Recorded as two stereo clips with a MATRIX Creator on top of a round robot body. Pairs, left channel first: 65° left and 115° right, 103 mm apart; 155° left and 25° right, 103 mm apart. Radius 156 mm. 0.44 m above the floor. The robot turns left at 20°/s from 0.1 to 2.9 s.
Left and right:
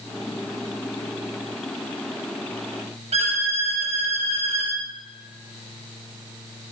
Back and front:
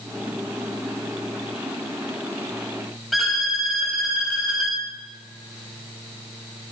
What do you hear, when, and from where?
3.1 s a violin: 110° right, 0.8 m